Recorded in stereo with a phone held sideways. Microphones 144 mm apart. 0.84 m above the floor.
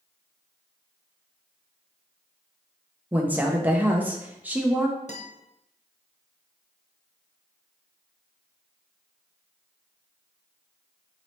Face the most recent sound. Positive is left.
turn(degrees=50)  # may be behind; listen again after turning